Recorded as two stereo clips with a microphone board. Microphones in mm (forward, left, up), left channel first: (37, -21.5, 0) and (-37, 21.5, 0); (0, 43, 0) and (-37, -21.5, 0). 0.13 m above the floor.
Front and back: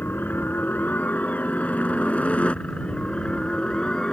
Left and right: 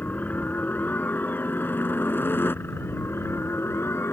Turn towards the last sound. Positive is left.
turn(degrees=45)